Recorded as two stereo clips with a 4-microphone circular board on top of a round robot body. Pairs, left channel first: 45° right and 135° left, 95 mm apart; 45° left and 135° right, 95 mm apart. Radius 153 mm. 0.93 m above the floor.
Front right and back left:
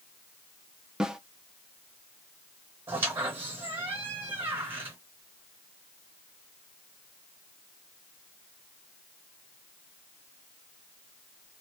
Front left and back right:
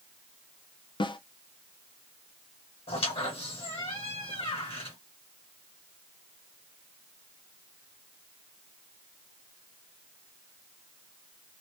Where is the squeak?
70° left, 1.3 m.